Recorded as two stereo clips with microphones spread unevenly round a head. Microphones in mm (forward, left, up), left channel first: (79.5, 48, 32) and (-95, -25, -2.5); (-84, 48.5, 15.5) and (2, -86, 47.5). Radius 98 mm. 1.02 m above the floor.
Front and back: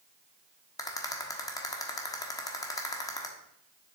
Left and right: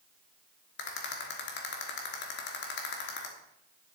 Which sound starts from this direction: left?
A rattle, at 0.8 s.